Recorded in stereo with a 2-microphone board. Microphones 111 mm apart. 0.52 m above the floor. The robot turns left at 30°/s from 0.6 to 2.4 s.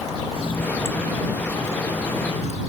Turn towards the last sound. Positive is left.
turn(degrees=75)